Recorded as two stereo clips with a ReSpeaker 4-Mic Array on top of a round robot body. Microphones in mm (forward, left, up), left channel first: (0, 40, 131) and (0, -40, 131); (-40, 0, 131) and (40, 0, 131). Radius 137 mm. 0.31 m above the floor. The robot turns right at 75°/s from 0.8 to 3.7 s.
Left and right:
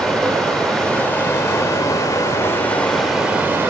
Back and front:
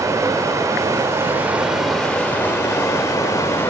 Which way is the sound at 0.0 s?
5° left.